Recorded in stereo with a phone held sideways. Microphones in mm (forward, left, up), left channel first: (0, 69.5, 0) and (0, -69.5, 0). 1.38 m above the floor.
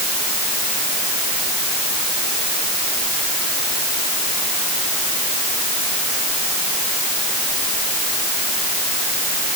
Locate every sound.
Only background noise.